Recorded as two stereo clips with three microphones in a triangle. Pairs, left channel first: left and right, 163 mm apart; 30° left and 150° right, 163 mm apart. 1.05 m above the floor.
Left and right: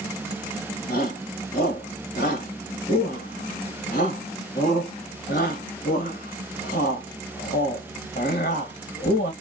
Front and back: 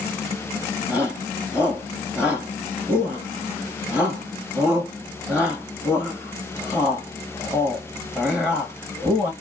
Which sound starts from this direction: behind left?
A shout, at 0.9 s.